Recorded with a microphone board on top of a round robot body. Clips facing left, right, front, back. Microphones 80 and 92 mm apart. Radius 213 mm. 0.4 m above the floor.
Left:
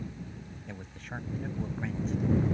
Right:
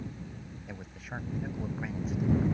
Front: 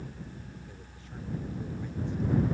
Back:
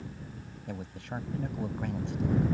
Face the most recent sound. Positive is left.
turn(degrees=-175)